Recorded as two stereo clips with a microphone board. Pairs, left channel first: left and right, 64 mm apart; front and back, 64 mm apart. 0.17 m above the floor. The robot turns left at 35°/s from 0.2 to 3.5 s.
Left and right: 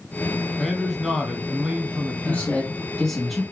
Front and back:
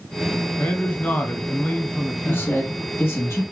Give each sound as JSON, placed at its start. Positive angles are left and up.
{"t": 0.6, "sound": "a man speaking", "azimuth_deg": 0, "distance_m": 1.2}
{"t": 2.2, "sound": "a man speaking", "azimuth_deg": 40, "distance_m": 1.5}